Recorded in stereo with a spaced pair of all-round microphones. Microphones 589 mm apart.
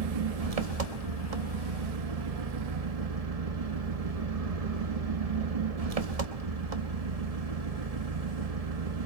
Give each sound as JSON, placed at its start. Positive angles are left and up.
{"t": 0.0, "sound": "an engine running", "side_deg": -80, "distance_m": 1.2}